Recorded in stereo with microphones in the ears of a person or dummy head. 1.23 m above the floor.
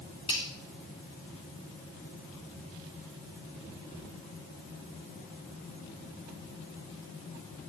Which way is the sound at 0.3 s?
30° left (ahead or behind).